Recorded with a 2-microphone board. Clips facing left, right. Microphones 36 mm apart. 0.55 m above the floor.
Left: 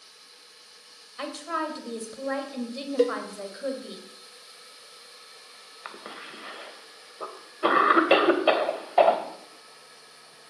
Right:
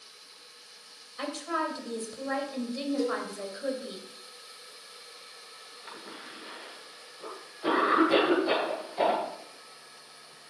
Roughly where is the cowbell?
Left.